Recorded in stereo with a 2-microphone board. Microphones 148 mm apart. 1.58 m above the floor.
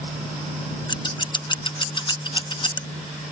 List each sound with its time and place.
0.9 s scissors: 30° left (ahead or behind)